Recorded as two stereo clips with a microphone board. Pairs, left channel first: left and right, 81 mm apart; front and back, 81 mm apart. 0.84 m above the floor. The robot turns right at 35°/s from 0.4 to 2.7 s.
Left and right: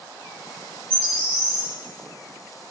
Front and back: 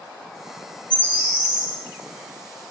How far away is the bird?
About 2.5 m.